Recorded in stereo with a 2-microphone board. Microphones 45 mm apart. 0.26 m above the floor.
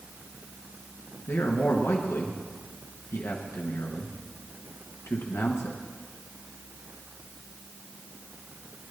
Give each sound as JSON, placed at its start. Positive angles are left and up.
{"t": 1.3, "sound": "a man speaking", "side_deg": 70, "distance_m": 3.0}